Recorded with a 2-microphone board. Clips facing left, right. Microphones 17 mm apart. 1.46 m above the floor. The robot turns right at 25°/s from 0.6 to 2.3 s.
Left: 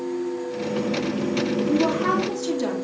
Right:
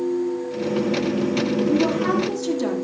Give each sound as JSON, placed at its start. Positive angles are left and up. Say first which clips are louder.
{"t": 1.7, "sound": "a woman speaking", "louder": "left 1 dB", "side_deg": 10, "distance_m": 3.5}